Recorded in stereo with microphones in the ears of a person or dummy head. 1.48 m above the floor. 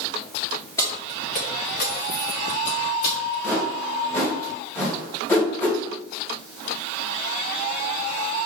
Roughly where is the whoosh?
Centre.